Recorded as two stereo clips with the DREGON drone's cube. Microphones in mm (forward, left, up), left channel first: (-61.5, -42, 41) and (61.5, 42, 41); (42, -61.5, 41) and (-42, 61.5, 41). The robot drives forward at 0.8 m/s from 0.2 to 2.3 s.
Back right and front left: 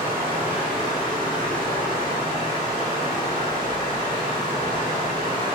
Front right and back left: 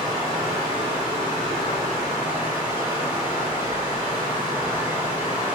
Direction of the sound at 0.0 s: 95° left.